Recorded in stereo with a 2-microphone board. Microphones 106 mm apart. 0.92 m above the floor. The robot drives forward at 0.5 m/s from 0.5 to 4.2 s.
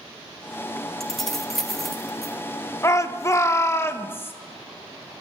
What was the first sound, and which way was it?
Keys jangling, 5° left (ahead or behind).